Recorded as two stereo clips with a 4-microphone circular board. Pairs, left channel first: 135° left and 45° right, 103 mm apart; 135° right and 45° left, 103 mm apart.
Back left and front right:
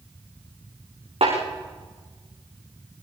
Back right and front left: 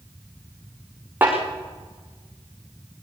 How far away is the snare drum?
About 7.5 m.